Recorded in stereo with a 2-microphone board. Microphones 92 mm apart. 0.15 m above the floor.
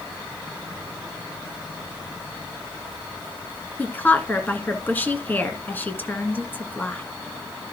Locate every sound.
3.8 s a woman speaking: 20° left (ahead or behind), 1.9 m